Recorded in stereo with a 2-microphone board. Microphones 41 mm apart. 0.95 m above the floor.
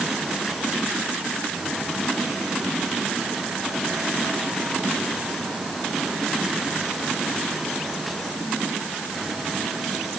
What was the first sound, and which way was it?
Only background noise.